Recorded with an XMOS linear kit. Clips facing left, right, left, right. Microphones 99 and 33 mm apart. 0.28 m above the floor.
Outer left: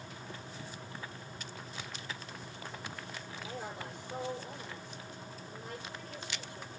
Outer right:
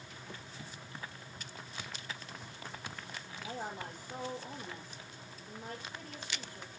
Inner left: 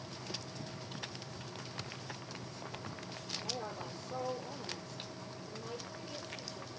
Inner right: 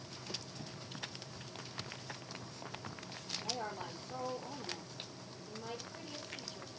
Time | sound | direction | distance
3.3 | a woman speaking | 40° right (ahead or behind) | 7 m